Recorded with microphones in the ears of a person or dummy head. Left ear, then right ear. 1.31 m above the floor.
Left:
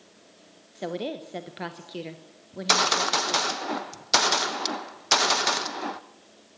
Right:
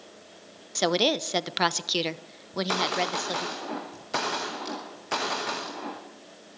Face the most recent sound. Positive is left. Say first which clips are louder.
# left 4 dB
turn(degrees=80)